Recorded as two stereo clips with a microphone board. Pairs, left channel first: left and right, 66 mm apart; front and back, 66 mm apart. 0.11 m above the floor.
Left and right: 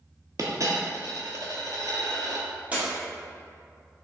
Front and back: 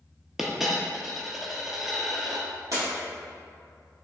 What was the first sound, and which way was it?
A dropped coin, 95° right.